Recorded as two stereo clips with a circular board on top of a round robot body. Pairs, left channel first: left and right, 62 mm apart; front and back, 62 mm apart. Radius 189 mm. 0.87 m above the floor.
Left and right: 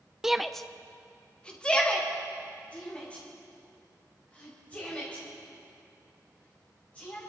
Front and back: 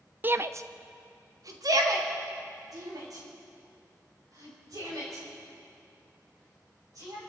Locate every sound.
0.2 s a shout: 165° right, 1.0 m; by 7.2 s 160° left, 11 m